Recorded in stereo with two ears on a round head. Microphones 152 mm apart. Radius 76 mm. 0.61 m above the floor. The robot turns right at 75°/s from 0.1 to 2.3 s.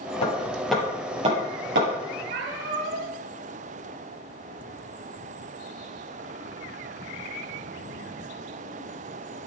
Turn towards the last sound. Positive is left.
turn(degrees=-60)  # may be behind; listen again after turning